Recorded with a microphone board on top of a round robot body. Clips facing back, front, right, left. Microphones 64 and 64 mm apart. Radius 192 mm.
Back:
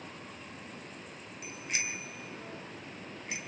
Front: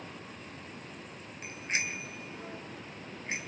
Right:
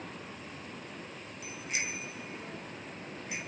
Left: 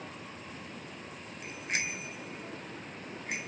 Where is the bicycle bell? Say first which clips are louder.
Front 3 dB, left 2 dB; 55° left, 3 m.